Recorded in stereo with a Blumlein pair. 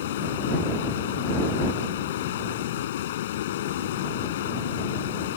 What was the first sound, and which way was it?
Running water, 55° left.